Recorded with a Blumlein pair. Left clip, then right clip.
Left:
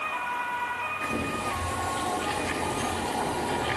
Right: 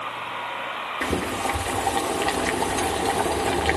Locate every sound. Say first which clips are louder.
1.0 s boiling: right 4 dB; 35° right, 2 m